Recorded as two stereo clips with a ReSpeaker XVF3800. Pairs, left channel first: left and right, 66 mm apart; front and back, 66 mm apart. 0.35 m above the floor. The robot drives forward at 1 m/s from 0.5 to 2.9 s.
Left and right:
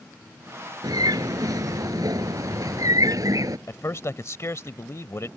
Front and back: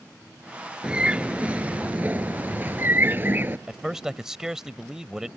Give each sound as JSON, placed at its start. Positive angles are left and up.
{"t": 0.8, "sound": "a bird", "azimuth_deg": -105}
{"t": 3.7, "sound": "a man speaking", "azimuth_deg": 105}